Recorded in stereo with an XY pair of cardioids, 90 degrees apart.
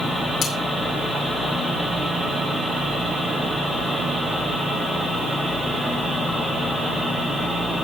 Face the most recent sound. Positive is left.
turn(degrees=65)